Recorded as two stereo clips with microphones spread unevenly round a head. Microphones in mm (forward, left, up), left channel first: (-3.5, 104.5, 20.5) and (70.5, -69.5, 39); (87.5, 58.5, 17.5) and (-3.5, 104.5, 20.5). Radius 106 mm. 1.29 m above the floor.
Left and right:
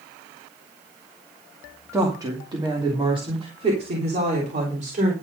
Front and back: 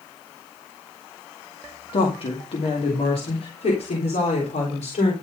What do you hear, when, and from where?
1.9 s a woman speaking: 10° left, 2.5 m; by 5.1 s 15° right, 4 m